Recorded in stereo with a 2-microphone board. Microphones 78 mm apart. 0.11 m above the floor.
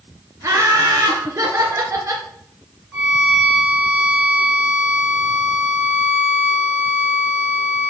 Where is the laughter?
35° right (ahead or behind), 1.7 m.